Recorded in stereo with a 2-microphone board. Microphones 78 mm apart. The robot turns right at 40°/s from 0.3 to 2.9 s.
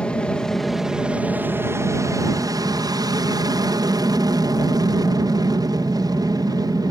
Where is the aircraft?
165° left; by 6.9 s 90° right.